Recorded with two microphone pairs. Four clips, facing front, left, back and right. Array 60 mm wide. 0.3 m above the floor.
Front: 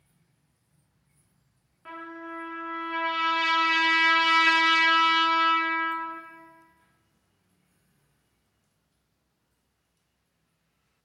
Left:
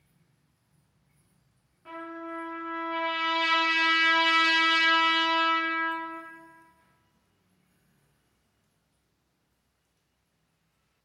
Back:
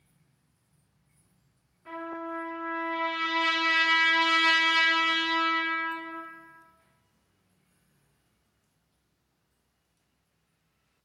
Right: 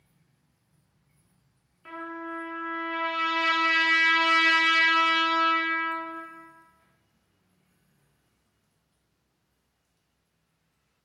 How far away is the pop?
No pop in this recording.